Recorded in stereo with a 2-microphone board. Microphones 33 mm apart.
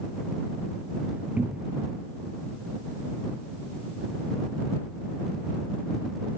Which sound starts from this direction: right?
A cupboard door, at 1.4 s.